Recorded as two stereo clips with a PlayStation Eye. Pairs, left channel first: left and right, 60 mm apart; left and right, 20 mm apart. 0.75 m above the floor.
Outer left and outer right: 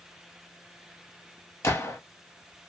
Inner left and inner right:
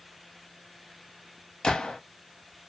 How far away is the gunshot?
About 0.9 m.